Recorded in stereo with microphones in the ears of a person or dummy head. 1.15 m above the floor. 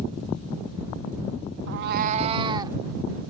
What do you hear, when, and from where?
1.7 s a cat meowing: 65° right (ahead or behind); by 2.8 s 20° right (ahead or behind)